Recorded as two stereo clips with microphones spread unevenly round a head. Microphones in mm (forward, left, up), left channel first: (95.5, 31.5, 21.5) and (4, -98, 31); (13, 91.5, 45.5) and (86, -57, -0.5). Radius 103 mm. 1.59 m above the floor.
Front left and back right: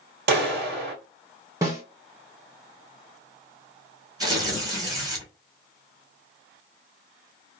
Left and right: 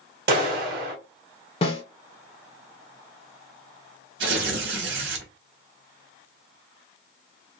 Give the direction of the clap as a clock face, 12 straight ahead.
4 o'clock.